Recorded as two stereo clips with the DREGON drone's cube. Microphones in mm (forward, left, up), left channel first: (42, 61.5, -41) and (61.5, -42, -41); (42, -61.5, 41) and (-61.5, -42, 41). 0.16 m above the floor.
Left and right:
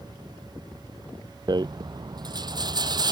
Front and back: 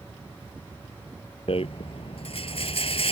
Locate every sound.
1.5 s a rattle: 30° right